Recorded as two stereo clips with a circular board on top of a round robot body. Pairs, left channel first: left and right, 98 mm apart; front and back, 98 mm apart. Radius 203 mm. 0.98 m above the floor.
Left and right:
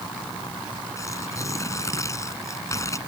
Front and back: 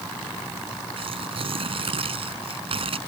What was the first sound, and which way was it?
Tearing paper, 150° left.